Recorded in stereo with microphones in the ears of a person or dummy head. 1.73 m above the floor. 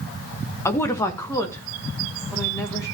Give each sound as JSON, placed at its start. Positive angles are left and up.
{"t": 0.7, "sound": "a woman speaking", "side_deg": 20, "distance_m": 1.1}